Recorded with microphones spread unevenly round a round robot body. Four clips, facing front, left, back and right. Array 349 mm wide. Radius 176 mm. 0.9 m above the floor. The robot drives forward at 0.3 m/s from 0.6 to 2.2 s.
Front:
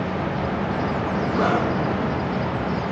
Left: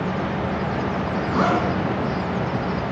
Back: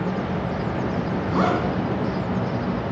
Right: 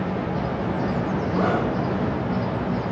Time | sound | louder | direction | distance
1.3 | a zipper | left 3 dB, even | 135° left | 4.5 m